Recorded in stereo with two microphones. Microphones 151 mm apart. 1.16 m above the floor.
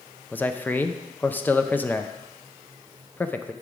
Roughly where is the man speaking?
Centre.